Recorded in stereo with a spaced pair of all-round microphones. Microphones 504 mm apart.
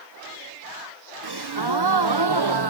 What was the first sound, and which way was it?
A gasp, 55° right (ahead or behind).